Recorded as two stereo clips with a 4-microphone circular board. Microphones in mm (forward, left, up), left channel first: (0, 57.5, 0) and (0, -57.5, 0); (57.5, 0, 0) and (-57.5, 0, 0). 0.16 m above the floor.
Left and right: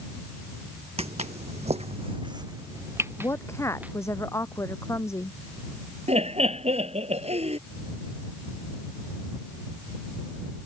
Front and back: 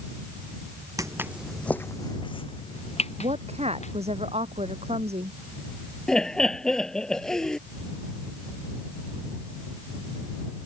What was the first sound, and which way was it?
Footsteps, 120° right.